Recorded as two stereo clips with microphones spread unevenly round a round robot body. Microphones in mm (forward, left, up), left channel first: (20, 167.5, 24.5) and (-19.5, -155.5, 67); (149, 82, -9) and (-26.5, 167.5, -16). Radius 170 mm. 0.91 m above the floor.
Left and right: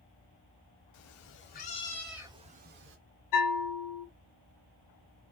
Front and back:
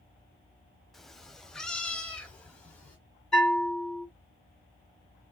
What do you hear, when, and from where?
0.9 s a cat meowing: 60° left, 0.9 m; by 3.0 s 105° right, 0.9 m
3.3 s a bell: 60° left, 1.9 m